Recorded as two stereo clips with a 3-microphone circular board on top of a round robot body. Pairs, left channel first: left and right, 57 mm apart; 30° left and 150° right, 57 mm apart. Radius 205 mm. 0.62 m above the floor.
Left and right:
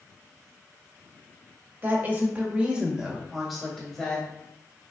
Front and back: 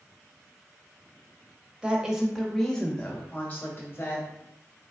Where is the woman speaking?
85° right, 1.2 m; by 4.3 s 20° left, 1.4 m.